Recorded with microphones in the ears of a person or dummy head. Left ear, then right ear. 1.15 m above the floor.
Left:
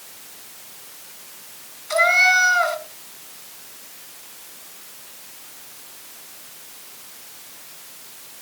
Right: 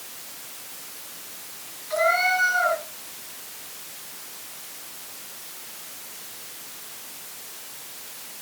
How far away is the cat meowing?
About 3.5 m.